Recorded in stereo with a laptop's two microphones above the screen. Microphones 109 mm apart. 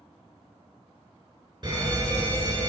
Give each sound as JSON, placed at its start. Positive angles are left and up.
{"t": 1.6, "sound": "an alarm", "side_deg": -45, "distance_m": 3.0}